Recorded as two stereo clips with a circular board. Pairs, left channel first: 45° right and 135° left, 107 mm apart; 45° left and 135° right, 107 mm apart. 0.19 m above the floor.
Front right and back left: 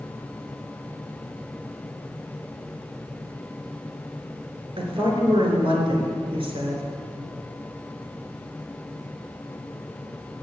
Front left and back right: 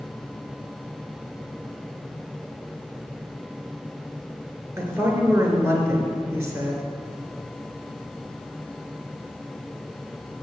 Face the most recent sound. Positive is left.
turn(degrees=165)